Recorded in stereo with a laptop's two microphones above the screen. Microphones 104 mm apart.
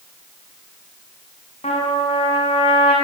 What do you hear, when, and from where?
1.6 s a trumpet: 85° left, 6.5 m